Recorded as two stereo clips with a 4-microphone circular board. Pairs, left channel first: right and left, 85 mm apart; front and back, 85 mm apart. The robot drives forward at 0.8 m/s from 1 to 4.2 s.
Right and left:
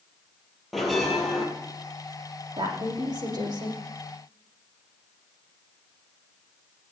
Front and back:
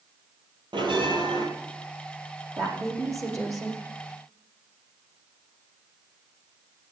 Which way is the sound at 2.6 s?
125° left.